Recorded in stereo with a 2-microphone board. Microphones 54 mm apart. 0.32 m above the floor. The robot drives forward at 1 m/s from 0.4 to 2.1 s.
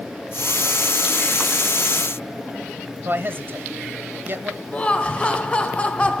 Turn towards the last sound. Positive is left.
turn(degrees=20)  # may be behind; listen again after turning